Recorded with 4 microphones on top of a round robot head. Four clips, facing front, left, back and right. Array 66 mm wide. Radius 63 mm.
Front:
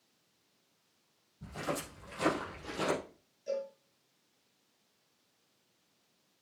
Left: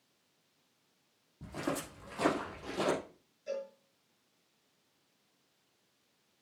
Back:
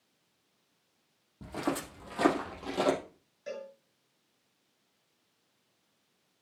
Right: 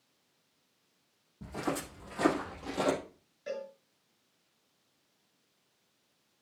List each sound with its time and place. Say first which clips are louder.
1.4 s footsteps: right 2 dB, back 4 dB; straight behind, 3.5 m; by 3.0 s 165° right, 3 m
3.5 s a cowbell: even, front 4 dB; 130° right, 2.5 m